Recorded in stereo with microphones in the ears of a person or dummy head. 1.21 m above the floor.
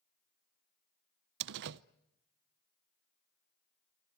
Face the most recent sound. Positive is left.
turn(degrees=-60)  # may be behind; listen again after turning